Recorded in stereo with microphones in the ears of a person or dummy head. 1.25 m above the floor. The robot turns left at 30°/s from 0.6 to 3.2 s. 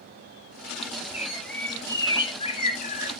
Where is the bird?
170° right, 1.0 m; by 3.1 s 130° left, 1.0 m.